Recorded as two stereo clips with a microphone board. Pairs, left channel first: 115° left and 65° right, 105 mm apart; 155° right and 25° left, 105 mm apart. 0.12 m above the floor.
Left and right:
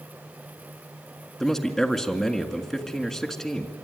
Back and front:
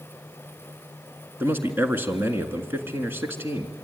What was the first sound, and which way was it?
A man speaking, 30° left.